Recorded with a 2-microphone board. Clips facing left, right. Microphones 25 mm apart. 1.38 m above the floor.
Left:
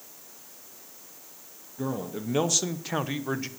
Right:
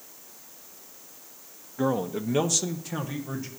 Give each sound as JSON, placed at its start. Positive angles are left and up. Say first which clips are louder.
{"t": 1.8, "sound": "a man speaking", "louder": "right 6 dB", "side_deg": -35, "distance_m": 0.7}